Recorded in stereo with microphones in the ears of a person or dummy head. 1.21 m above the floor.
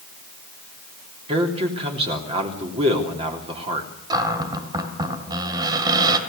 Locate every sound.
1.3 s a man speaking: 35° right (ahead or behind), 3 m
4.1 s a cupboard door: 20° right (ahead or behind), 2.5 m